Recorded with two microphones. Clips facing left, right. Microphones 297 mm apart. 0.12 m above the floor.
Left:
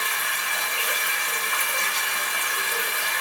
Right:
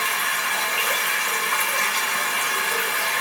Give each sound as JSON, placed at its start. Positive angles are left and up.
{"t": 0.0, "sound": "running water", "side_deg": -75, "distance_m": 0.8}